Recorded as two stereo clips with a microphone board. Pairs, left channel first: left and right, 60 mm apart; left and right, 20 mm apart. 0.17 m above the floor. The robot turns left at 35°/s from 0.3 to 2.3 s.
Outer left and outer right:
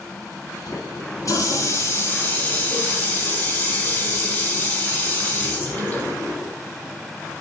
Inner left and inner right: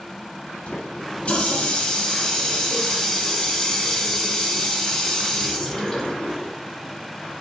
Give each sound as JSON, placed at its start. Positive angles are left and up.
{"t": 0.7, "sound": "a running tap", "azimuth_deg": 80, "distance_m": 4.0}